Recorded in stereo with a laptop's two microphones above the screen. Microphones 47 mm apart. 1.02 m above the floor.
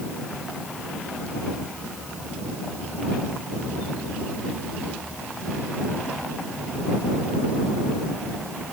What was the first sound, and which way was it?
Only background noise.